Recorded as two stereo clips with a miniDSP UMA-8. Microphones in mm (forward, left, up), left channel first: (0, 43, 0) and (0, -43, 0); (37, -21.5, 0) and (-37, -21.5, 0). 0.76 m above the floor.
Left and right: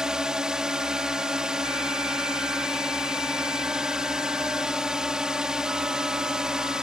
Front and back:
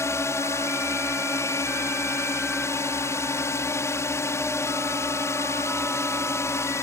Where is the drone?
15° right.